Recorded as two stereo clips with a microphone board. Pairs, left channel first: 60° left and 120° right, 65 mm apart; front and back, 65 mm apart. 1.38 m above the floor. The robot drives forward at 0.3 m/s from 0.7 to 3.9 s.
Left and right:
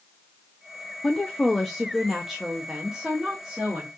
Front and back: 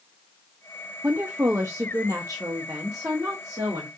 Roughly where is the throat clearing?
No throat clearing in this recording.